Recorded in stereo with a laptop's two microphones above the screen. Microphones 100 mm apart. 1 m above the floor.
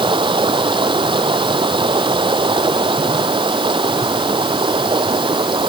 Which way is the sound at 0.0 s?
55° right (ahead or behind).